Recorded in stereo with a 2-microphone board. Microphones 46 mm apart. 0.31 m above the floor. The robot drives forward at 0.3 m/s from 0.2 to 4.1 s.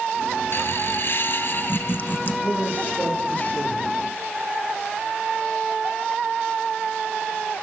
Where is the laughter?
55° left (ahead or behind), 1.6 m; by 2.3 s 45° left (ahead or behind), 1.8 m.